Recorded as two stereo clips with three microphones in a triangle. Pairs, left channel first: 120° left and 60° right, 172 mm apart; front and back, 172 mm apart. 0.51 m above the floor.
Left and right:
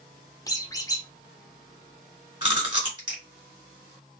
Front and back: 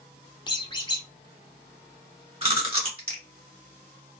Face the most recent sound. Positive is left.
turn(degrees=-125)